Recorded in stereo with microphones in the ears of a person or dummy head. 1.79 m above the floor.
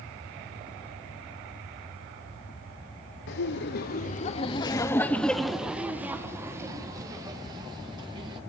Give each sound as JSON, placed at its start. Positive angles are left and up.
{"t": 3.3, "sound": "laughter", "side_deg": 65, "distance_m": 0.9}